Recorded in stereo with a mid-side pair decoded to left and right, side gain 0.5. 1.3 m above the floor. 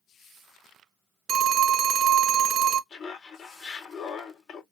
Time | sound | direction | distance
1.3 | a phone ringing | 50° right | 0.7 m
2.9 | laughter | 40° left | 2.5 m